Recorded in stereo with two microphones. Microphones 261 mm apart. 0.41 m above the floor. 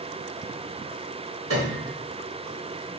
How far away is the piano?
About 2.5 m.